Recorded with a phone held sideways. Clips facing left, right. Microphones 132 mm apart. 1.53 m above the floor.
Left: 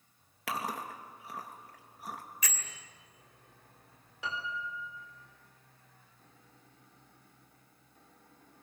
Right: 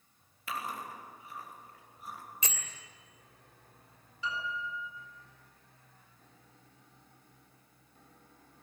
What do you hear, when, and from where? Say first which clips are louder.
0.5 s chewing: left 2 dB; 80° left, 2.5 m
2.4 s a bell: even; 25° right (ahead or behind), 2.5 m
4.2 s a piano: right 1 dB; 70° left (ahead or behind), 4.5 m